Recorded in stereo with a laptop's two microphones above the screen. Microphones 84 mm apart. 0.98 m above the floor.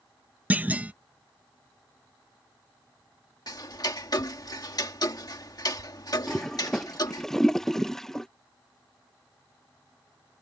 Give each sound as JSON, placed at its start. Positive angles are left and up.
{"t": 0.5, "sound": "a clunk", "side_deg": -20}
{"t": 3.5, "sound": "ticking", "side_deg": 50}
{"t": 6.3, "sound": "a toilet flushing", "side_deg": 5}